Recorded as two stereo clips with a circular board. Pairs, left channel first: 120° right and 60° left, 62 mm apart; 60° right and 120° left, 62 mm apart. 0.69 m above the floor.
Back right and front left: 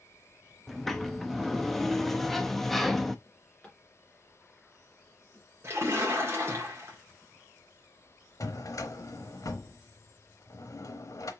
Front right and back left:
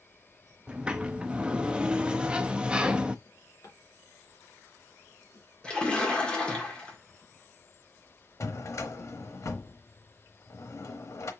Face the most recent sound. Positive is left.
turn(degrees=-95)